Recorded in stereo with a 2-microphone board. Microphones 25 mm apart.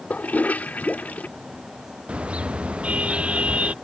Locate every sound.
0.1 s a toilet flushing: 80° left
2.1 s a car horn: 50° right (ahead or behind)